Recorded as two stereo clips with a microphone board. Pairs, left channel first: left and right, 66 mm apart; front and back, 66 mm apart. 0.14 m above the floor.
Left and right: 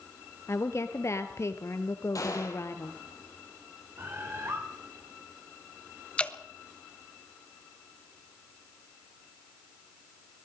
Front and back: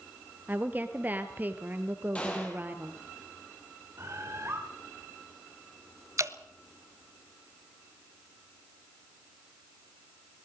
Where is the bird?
135° right, 6.5 m.